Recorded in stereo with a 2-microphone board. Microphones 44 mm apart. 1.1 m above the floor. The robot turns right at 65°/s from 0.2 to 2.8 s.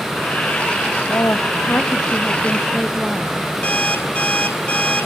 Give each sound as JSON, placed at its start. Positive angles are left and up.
{"t": 1.1, "sound": "a woman speaking", "azimuth_deg": 85, "distance_m": 1.0}
{"t": 3.6, "sound": "an alarm clock", "side_deg": 35, "distance_m": 2.5}